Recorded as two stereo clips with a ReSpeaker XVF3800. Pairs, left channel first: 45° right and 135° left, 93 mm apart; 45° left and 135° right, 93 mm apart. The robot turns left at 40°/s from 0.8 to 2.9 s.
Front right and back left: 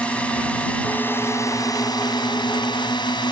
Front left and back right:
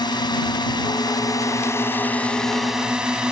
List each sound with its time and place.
0.0 s a drone: 30° left; by 3.3 s 55° right